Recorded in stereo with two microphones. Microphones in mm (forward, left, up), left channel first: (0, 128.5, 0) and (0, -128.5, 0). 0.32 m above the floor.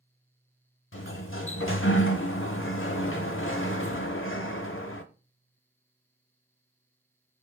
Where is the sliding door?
55° left (ahead or behind), 0.6 m.